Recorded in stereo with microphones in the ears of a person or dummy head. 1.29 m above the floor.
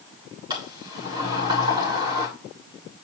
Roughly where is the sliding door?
Right.